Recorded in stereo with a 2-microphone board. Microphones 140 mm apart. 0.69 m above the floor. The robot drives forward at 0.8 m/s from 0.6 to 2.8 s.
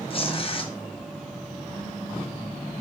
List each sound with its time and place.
0.1 s tearing paper: 40° left (ahead or behind), 0.9 m